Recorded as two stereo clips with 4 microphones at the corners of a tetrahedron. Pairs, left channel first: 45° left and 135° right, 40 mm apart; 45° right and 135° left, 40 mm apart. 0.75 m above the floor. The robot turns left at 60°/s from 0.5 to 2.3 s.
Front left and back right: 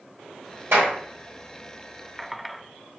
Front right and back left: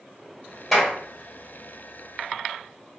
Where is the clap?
135° right, 2 m; by 0.9 s 150° right, 2 m.